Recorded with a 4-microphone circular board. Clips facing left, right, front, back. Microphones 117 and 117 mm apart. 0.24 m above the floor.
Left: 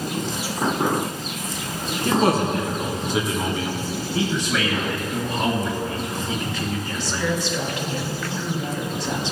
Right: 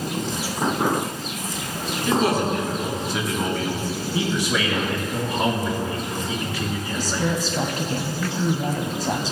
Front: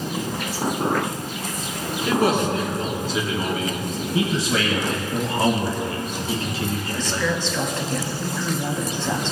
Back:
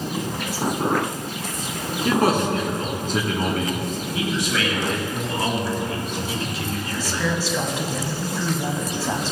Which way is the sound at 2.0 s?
135° left.